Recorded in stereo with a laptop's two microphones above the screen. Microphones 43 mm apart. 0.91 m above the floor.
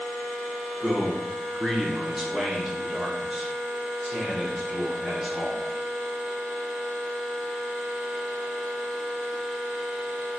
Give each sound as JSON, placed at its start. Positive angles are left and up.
{"t": 0.8, "sound": "a man speaking", "side_deg": 0, "distance_m": 0.8}